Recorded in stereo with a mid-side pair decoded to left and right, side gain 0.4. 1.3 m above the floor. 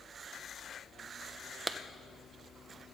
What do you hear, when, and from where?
1.7 s a clap: 30° right, 0.8 m